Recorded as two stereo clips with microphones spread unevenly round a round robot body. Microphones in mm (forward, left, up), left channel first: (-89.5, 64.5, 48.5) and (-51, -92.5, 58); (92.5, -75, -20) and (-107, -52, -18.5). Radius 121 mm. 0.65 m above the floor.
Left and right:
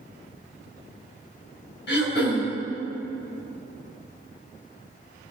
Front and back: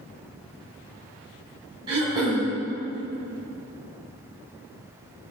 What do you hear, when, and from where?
1.9 s throat clearing: 100° left, 2.5 m